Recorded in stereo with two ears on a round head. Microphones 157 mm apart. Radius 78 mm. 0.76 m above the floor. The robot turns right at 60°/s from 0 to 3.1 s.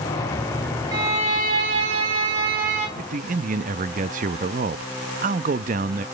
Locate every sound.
0.9 s a violin: 155° right, 3 m; by 2.9 s 35° right, 3 m
3.0 s a man speaking: 50° right (ahead or behind), 0.6 m; by 6.0 s 45° right (ahead or behind), 0.6 m